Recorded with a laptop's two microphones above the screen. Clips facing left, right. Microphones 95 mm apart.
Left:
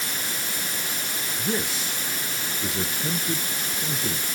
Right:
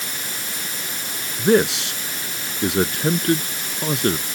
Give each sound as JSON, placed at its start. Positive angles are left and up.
{"t": 1.4, "sound": "a man speaking", "side_deg": -75}